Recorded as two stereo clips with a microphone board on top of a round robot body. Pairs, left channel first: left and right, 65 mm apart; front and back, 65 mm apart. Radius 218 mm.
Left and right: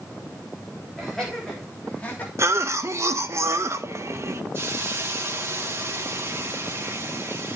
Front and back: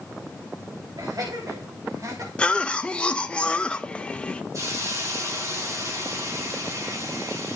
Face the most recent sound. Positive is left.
turn(degrees=-145)